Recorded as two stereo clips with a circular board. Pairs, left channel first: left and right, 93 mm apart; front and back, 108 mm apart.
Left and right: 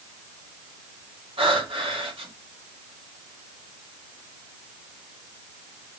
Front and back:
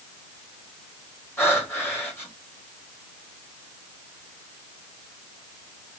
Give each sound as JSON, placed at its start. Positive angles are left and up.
{"t": 1.4, "sound": "breathing", "azimuth_deg": -70, "distance_m": 2.0}